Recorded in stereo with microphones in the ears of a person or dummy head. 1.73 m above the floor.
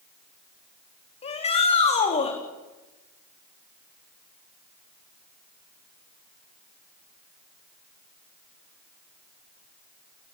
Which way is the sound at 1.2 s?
30° left (ahead or behind).